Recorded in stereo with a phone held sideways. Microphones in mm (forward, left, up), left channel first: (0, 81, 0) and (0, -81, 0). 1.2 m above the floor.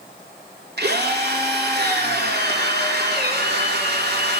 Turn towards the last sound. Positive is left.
turn(degrees=-75)  # may be behind; listen again after turning